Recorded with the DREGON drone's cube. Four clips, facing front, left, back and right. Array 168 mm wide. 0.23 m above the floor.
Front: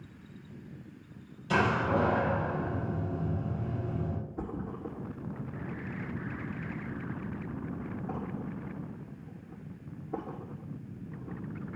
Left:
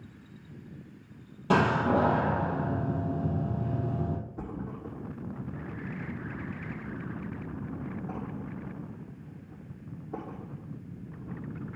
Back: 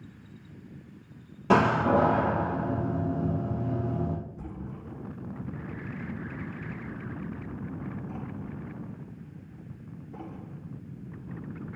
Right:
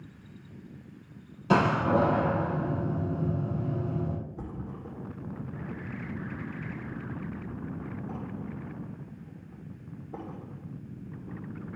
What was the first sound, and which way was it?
A door slam, 165° left.